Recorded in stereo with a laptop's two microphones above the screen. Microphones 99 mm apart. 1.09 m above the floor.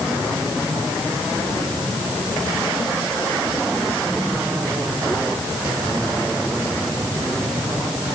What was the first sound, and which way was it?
Only background noise.